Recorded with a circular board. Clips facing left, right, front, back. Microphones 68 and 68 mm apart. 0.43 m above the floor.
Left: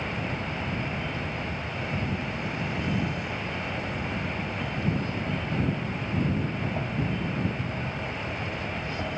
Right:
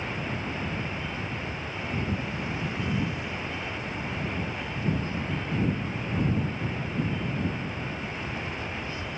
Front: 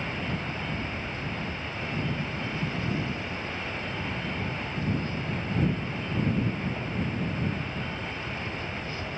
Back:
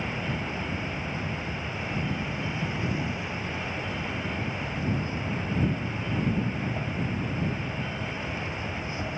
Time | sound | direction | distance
0.0 | an insect | 110° left | ?